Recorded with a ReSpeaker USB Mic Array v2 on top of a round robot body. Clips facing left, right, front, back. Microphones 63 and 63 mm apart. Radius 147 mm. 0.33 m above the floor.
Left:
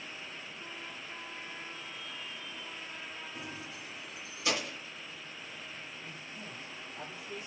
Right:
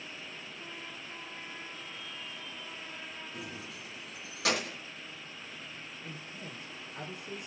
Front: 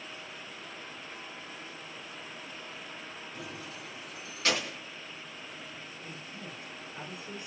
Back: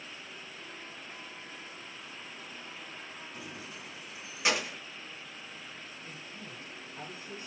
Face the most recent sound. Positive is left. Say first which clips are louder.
# right 1 dB, front 2 dB
turn(degrees=-70)